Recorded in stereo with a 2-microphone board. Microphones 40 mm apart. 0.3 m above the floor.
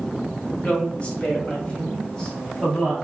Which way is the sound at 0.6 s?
35° left (ahead or behind).